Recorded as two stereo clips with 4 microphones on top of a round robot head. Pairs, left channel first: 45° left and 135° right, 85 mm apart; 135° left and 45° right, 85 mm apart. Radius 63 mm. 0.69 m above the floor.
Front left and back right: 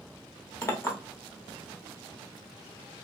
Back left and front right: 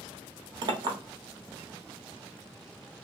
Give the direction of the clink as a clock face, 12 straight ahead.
12 o'clock.